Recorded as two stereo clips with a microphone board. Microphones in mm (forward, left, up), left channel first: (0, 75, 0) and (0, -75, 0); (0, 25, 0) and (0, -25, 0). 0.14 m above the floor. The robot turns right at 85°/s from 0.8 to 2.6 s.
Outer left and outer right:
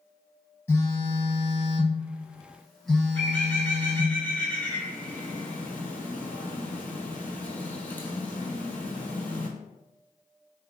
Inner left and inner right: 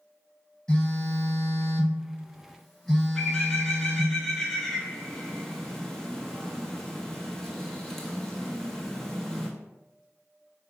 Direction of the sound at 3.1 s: 10° left (ahead or behind).